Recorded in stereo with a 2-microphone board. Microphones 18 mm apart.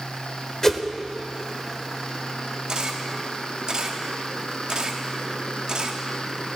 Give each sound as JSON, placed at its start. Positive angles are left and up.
{"t": 0.6, "sound": "a whoosh", "side_deg": 25, "distance_m": 1.3}
{"t": 2.7, "sound": "a camera shutter", "side_deg": -45, "distance_m": 1.5}